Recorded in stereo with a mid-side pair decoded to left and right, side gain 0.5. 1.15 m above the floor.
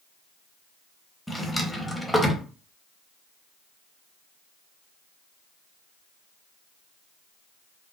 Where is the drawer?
5° left, 0.8 m.